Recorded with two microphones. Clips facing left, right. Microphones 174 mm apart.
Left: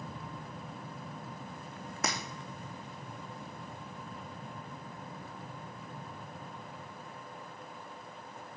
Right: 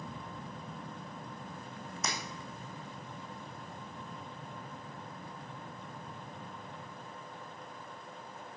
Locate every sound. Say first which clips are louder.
2.0 s breaking glass: left 4 dB; 65° left (ahead or behind), 2.5 m